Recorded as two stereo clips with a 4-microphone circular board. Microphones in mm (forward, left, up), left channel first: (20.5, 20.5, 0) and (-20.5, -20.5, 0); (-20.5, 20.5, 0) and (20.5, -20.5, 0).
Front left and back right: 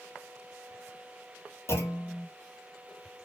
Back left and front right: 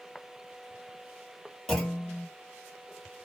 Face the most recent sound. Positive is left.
turn(degrees=55)